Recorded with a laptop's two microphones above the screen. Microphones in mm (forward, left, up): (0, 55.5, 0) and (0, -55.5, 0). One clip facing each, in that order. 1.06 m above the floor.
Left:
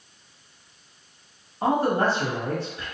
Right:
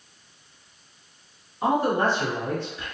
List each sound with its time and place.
1.6 s a man speaking: 40° left (ahead or behind), 1.4 m